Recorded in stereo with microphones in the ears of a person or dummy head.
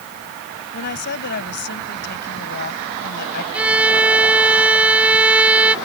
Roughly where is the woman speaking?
Left.